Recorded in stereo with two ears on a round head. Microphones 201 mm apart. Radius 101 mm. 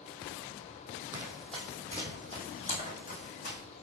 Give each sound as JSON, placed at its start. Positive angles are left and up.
{"t": 1.1, "sound": "running footsteps", "side_deg": -10, "distance_m": 1.8}